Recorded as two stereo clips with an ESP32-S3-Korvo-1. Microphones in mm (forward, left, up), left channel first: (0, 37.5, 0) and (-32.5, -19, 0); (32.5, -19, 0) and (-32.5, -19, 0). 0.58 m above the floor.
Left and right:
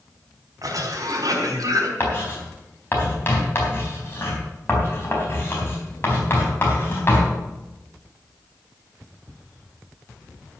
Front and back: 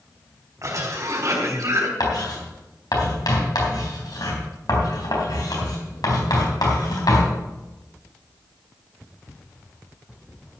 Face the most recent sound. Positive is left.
turn(degrees=10)